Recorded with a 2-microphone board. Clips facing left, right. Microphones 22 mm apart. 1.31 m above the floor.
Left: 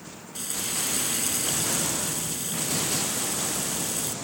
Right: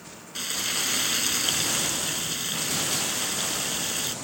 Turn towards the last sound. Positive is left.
turn(degrees=-30)  # may be behind; listen again after turning